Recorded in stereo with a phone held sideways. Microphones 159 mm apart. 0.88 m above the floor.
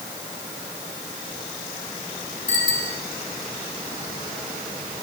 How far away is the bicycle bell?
About 5.5 m.